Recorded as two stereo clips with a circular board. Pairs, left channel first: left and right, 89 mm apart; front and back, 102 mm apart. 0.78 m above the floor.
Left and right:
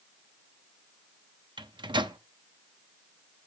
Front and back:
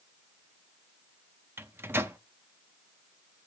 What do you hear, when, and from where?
1.6 s a microwave: 110° right, 0.5 m